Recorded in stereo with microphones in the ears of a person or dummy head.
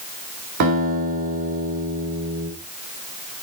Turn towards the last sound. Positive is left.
turn(degrees=-60)  # may be behind; listen again after turning